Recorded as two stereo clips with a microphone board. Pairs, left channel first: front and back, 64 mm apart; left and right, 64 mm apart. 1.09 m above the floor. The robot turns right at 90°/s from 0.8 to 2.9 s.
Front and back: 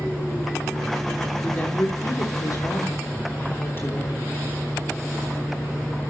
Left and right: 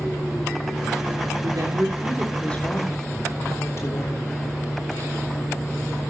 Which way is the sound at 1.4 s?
80° right.